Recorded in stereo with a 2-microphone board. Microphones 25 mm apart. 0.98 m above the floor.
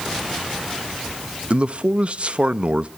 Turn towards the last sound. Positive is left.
turn(degrees=-45)  # may be behind; listen again after turning